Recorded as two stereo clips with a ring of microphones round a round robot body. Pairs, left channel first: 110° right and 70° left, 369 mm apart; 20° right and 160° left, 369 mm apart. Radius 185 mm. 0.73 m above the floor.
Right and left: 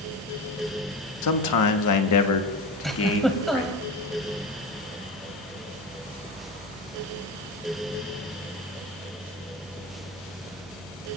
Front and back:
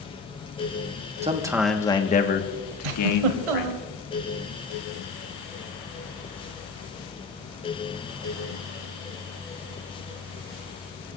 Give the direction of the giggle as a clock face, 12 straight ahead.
7 o'clock.